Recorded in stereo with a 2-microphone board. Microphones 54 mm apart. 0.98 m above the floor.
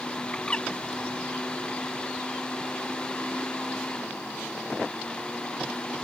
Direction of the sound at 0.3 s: 20° left (ahead or behind).